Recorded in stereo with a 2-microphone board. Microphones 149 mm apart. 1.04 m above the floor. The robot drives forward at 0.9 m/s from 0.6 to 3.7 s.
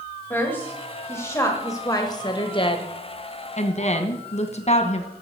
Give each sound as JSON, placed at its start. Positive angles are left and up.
{"t": 0.3, "sound": "a woman speaking", "side_deg": 15, "distance_m": 2.5}